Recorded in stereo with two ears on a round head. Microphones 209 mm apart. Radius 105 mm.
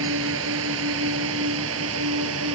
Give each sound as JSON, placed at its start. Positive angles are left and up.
{"t": 0.0, "sound": "a drone", "side_deg": -65}